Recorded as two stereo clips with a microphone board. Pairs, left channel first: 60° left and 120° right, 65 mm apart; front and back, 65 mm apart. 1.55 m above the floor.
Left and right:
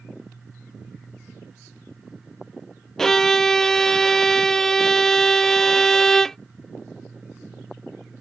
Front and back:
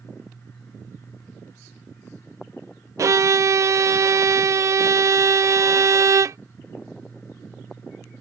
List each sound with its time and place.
3.0 s a violin: 140° left